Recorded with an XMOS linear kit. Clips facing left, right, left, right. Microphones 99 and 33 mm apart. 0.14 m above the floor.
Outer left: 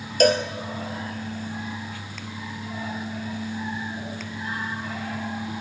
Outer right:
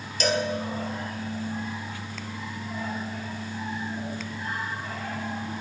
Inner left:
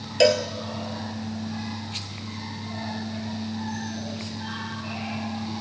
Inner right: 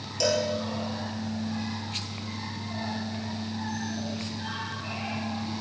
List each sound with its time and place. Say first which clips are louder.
0.2 s a cowbell: outer left 7 dB, inner left 7 dB; 50° left (ahead or behind), 2 m